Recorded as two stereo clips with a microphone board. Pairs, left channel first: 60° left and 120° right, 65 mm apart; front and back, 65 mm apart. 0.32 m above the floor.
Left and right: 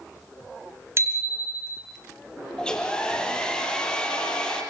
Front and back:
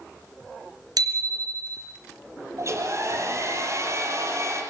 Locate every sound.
1.0 s a bicycle bell: 170° right, 2.5 m
2.6 s a hair dryer: 135° left, 5.5 m